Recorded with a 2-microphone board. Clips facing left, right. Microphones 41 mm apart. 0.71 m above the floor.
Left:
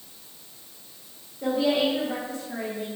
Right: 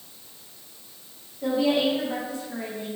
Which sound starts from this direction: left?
A woman speaking, at 1.4 s.